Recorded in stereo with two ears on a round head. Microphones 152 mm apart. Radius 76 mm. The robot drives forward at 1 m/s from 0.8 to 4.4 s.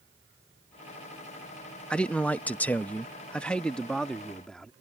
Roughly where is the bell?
No bell in this recording.